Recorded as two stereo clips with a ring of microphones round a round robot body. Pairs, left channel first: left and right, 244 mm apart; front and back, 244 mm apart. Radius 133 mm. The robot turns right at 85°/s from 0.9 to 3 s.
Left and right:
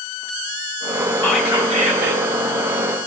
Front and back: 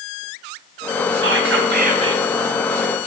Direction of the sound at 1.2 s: 170° left.